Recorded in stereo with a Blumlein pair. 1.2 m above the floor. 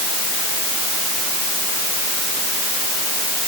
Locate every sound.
Only background noise.